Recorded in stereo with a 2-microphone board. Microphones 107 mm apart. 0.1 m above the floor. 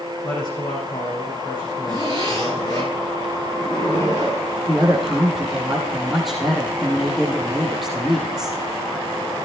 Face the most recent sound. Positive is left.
turn(degrees=0)  # may be behind; listen again after turning